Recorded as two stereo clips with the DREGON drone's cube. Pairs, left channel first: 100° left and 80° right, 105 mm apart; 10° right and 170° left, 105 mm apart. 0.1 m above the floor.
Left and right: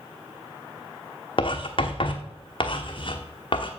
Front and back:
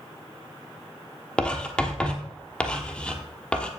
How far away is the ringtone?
I don't hear a ringtone.